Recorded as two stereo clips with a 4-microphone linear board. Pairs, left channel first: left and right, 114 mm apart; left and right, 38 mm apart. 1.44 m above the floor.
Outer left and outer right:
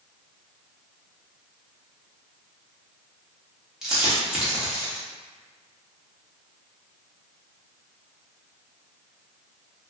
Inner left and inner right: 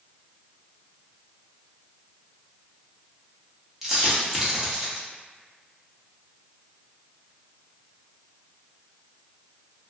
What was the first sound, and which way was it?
A dropped coin, 5° right (ahead or behind).